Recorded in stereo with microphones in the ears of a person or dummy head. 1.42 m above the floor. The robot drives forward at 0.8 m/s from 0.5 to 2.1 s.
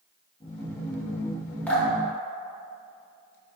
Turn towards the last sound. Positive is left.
turn(degrees=15)  # may be behind; listen again after turning